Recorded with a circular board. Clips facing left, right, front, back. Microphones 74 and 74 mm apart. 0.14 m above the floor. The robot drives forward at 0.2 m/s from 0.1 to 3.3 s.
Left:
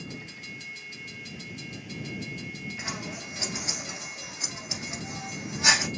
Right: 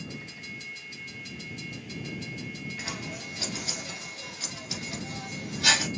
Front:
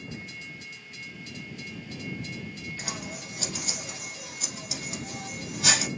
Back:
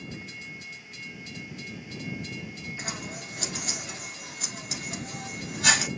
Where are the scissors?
145° left, 1.4 m; by 5.9 s 150° left, 1.5 m.